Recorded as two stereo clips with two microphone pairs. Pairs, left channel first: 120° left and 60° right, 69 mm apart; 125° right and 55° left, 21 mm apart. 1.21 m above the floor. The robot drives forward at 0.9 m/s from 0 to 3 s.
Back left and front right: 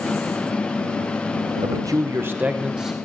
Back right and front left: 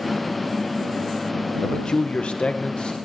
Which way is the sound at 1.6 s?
70° right.